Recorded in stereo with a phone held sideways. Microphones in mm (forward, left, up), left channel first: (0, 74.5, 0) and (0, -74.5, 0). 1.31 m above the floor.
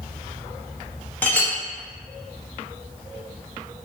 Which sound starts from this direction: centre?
A clink, at 1.2 s.